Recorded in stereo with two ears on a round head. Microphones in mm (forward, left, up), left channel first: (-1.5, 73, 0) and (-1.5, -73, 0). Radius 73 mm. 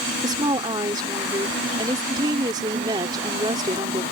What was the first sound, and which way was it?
A woman speaking, 25° right (ahead or behind).